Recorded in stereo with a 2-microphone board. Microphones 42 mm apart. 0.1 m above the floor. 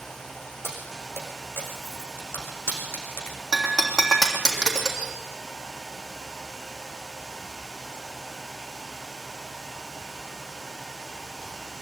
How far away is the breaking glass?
About 3 m.